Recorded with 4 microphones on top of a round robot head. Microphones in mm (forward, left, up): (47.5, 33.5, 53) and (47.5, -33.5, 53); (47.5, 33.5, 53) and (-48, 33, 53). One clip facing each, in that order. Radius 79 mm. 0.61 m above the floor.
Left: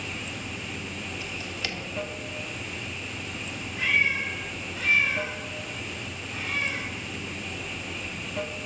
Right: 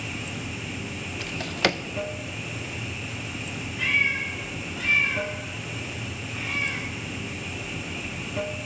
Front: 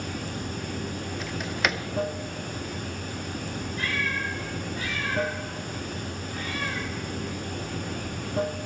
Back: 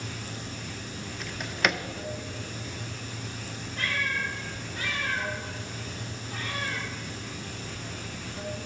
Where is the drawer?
90° right, 0.6 m.